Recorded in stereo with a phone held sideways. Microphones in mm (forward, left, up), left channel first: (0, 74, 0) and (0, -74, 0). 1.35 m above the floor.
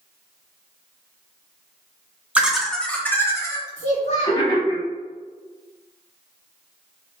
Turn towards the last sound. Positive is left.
turn(degrees=50)  # may be behind; listen again after turning